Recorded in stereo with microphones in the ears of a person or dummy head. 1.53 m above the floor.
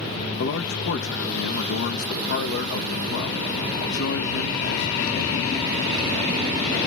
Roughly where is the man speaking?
Left.